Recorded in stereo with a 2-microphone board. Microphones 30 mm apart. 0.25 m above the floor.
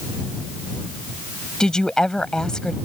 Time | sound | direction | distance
1.6 | a woman speaking | 25° left (ahead or behind) | ?